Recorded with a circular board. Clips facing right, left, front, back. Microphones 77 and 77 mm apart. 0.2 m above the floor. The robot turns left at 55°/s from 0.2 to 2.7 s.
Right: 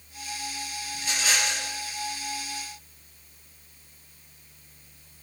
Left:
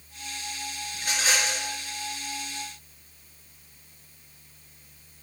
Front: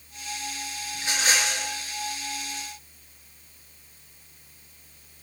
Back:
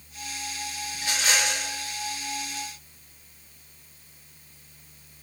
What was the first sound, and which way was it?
A rattle, 70° left.